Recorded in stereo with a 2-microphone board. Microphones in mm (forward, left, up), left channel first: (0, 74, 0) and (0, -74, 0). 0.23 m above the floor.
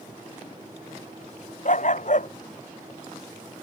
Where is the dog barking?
55° left (ahead or behind).